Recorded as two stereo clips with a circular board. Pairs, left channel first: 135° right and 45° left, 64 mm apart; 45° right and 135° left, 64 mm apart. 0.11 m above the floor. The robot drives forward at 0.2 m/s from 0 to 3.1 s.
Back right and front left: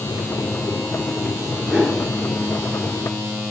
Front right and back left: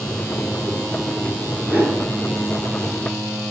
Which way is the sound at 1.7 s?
130° left.